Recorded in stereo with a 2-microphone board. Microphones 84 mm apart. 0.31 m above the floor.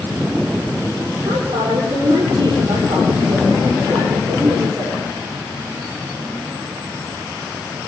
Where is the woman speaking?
75° right (ahead or behind), 8 m.